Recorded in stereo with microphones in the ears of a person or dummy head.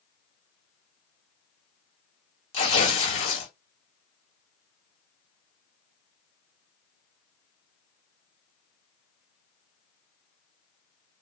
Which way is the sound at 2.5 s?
40° left (ahead or behind).